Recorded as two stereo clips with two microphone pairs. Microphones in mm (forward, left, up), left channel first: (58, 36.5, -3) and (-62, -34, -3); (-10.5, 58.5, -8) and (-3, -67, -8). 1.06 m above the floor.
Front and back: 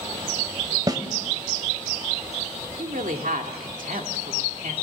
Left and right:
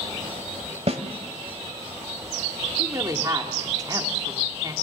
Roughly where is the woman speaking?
Behind right.